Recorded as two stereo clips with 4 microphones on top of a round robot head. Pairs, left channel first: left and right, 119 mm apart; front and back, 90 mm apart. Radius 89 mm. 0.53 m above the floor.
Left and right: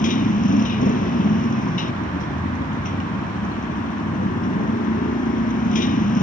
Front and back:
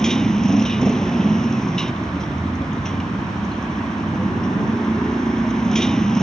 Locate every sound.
0.0 s a motorcycle: 85° left